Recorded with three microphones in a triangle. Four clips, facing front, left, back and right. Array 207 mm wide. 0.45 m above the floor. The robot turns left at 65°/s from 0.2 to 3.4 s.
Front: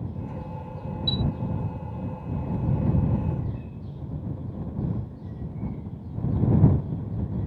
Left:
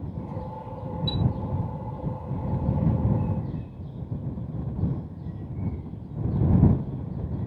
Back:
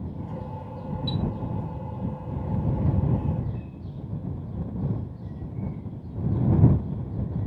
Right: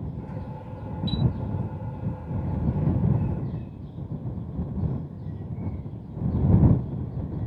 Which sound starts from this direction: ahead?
A chime, at 1.1 s.